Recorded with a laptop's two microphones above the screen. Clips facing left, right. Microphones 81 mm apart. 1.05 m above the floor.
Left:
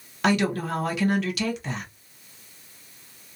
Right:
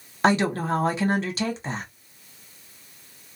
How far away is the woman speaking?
About 0.8 m.